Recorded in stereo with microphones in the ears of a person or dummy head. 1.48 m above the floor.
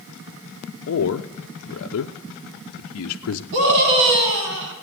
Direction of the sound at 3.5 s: 70° right (ahead or behind).